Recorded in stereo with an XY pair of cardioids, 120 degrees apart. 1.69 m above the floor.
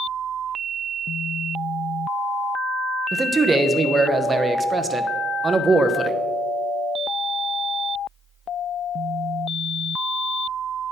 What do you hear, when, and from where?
3.1 s a man speaking: 25° right, 0.8 m